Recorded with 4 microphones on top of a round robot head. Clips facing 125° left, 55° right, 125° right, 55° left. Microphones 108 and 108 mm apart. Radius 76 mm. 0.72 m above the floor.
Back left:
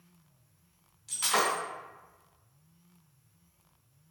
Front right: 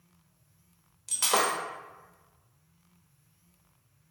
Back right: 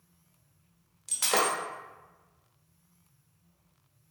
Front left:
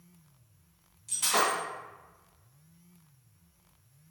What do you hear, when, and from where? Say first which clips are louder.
1.1 s breaking glass: front right 2 dB, even; 100° right, 1.0 m